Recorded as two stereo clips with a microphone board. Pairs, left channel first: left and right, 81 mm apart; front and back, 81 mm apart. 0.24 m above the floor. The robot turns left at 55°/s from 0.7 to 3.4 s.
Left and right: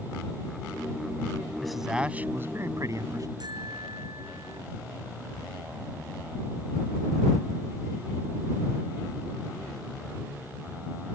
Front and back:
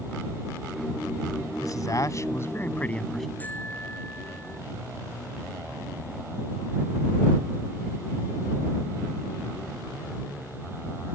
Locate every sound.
1.6 s a man speaking: 5° left; by 3.3 s 85° right
3.4 s a bicycle bell: 65° right